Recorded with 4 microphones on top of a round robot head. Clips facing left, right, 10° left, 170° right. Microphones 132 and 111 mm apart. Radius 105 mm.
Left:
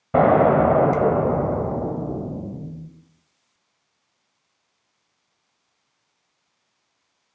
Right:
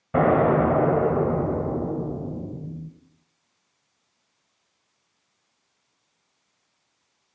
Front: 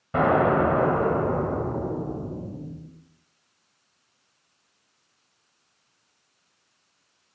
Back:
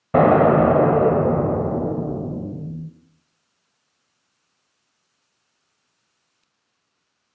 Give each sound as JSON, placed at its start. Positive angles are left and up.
{"t": 0.1, "sound": "an explosion", "azimuth_deg": 155, "distance_m": 1.4}